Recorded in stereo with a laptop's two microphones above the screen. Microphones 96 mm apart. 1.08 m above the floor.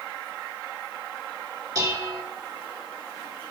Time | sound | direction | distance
1.8 | dishes clattering | 40° right (ahead or behind) | 1.7 m